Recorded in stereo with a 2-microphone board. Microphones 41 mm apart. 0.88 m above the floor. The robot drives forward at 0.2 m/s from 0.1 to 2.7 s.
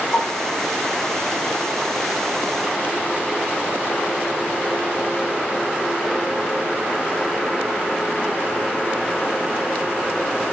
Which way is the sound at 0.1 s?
45° left (ahead or behind).